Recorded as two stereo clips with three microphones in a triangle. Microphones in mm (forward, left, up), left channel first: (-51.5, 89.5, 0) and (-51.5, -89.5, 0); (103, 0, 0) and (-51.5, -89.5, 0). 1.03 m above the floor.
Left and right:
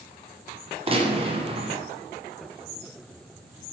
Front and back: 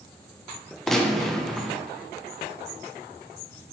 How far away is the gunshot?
About 0.5 m.